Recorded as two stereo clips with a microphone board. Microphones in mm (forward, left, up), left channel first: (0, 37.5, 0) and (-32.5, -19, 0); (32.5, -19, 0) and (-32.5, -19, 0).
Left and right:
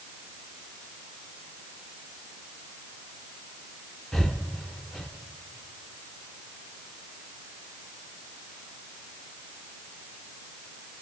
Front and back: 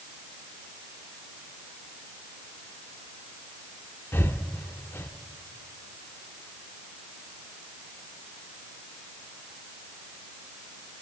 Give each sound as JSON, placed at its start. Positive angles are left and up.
{"t": 4.1, "sound": "breathing", "azimuth_deg": -20, "distance_m": 0.6}